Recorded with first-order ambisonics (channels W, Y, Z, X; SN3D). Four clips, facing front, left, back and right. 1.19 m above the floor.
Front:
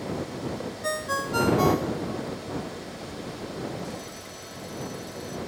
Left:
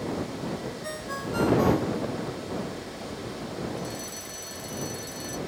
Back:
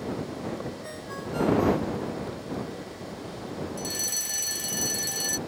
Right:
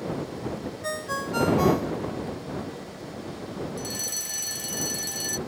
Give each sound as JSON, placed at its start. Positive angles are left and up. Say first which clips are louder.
{"t": 0.8, "sound": "a ringtone", "louder": "right 3 dB, front 8 dB", "azimuth_deg": -20}
{"t": 3.8, "sound": "a fire alarm", "louder": "right 3 dB, back 5 dB", "azimuth_deg": -150}